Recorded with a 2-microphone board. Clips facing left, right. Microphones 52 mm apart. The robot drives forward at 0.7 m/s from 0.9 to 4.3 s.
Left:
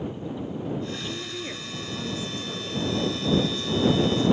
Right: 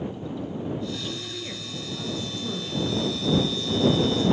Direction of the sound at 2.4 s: 25° right (ahead or behind).